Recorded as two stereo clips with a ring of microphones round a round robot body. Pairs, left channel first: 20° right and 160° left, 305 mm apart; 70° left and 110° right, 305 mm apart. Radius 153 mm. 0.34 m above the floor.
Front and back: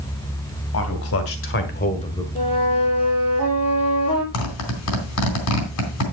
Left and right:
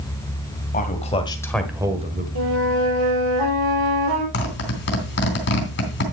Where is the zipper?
15° left, 3 m.